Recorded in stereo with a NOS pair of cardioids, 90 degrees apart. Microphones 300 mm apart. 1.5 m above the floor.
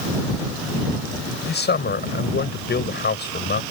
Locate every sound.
1.5 s a man speaking: 35° left